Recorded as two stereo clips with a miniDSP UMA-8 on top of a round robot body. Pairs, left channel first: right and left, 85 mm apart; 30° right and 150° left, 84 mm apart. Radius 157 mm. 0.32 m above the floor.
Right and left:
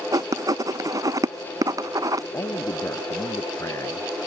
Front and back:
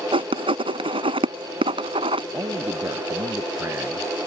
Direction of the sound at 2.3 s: 150° right.